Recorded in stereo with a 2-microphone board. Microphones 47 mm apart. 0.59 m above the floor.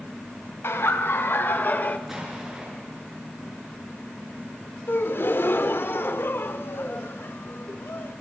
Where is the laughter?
65° left (ahead or behind), 3 m; by 2.0 s 35° left (ahead or behind), 1.6 m.